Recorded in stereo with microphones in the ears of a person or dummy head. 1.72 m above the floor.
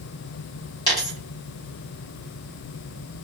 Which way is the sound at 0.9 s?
25° left (ahead or behind).